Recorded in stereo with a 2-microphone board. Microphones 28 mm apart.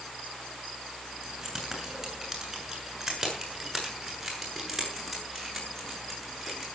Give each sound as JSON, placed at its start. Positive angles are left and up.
{"t": 1.2, "sound": "keys jangling", "side_deg": -10, "distance_m": 8.0}